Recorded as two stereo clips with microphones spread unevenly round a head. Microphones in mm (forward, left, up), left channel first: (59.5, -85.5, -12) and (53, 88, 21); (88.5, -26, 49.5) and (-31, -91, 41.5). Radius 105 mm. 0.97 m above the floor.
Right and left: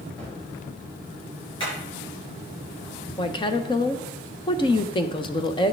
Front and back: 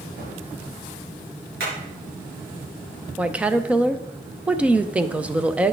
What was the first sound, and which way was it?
A gunshot, 175° right.